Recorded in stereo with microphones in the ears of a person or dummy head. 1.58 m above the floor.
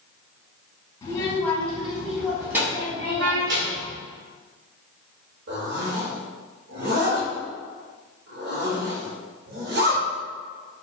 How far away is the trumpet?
About 0.8 m.